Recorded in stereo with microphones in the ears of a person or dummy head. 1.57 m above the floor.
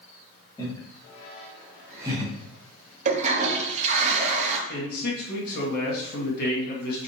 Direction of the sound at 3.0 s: 35° right (ahead or behind).